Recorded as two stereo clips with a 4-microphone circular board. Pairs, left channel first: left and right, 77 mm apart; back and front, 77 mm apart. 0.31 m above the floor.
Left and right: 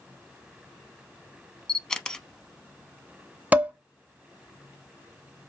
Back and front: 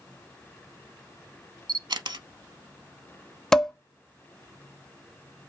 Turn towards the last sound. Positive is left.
turn(degrees=-110)